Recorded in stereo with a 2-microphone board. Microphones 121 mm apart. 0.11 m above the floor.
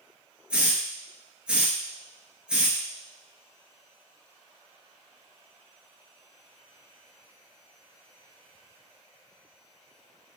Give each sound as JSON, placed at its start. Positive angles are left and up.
{"t": 0.5, "sound": "a hiss", "side_deg": -10, "distance_m": 0.7}